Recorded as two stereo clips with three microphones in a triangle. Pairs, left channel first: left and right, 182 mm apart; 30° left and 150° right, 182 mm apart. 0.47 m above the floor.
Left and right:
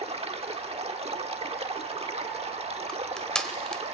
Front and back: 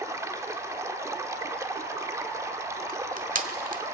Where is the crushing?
175° left, 1.2 m.